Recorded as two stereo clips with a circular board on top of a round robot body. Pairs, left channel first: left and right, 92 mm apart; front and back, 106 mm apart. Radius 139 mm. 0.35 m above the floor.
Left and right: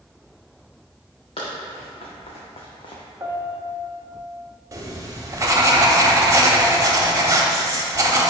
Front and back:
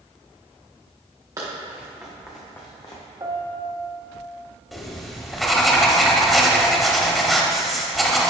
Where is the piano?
140° right, 1.1 m.